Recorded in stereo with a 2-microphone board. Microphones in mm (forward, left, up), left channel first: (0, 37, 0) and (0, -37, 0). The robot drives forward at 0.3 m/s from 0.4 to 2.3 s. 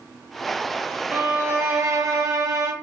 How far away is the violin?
About 0.8 m.